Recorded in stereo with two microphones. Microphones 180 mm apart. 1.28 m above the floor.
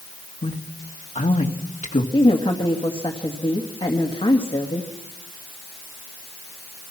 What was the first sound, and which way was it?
A man speaking, 45° left (ahead or behind).